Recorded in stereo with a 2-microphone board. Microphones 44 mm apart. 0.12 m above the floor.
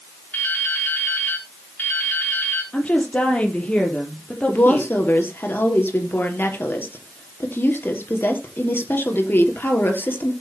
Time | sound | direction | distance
0.3 | dripping | 45° left (ahead or behind) | 5 m
2.7 | a woman speaking | 35° left (ahead or behind) | 4 m
4.5 | a woman speaking | 55° left (ahead or behind) | 3.5 m